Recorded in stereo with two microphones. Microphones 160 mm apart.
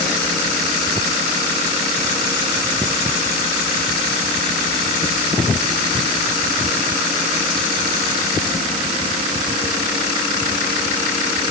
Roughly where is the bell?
No bell in this recording.